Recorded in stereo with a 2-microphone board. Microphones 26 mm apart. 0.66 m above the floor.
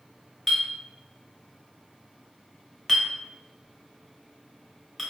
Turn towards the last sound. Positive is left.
turn(degrees=5)  # may be behind; listen again after turning